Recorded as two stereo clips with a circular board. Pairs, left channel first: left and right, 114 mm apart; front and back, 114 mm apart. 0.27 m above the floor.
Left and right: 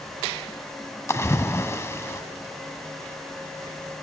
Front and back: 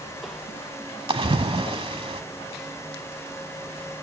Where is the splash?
150° left, 0.7 m.